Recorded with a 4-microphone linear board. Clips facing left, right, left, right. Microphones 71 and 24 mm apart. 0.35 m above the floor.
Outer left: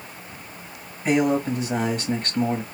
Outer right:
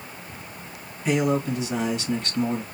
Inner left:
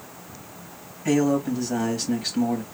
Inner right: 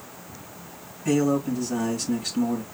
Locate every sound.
1.1 s a man speaking: 45° left (ahead or behind), 2.5 m